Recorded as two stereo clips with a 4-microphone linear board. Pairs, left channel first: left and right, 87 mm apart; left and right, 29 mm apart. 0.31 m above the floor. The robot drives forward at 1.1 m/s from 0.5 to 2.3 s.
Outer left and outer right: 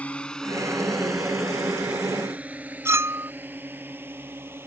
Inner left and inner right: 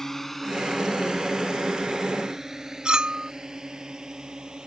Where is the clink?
30° right (ahead or behind).